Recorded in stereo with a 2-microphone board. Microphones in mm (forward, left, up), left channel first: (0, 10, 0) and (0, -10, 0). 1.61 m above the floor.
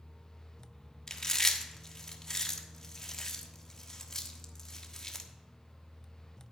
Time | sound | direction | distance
1.1 | chewing | 30° left (ahead or behind) | 1.2 m